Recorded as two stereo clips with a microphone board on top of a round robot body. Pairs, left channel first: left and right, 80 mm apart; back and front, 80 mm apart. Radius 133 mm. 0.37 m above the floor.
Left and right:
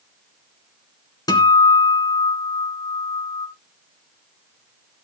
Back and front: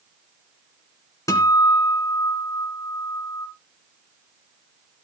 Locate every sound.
1.3 s a guitar: 130° left, 2.5 m